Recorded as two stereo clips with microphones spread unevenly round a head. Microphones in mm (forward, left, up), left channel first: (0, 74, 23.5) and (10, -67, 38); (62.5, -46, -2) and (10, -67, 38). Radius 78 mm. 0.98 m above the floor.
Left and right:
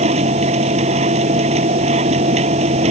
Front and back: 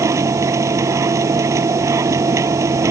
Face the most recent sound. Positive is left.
turn(degrees=-135)